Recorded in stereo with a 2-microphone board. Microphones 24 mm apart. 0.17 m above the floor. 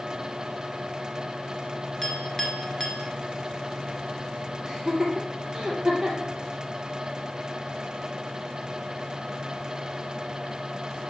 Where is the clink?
25° left (ahead or behind), 2 m.